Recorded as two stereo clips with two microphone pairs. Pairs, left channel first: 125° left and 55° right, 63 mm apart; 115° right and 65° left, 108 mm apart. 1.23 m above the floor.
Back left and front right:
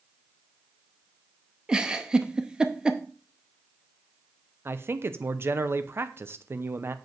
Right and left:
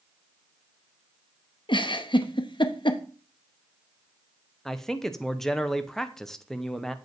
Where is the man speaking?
40° right, 0.6 m.